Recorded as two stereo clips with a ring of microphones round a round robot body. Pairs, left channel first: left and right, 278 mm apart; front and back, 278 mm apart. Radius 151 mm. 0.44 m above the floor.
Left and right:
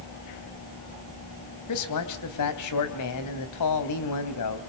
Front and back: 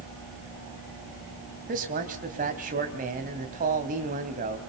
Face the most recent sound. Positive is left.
turn(degrees=115)